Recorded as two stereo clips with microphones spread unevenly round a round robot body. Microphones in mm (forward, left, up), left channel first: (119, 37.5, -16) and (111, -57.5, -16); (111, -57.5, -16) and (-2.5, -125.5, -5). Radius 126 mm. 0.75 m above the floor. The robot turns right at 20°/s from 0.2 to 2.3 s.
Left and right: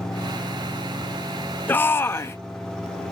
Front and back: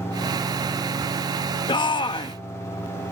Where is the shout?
25° left; by 2.4 s 40° left.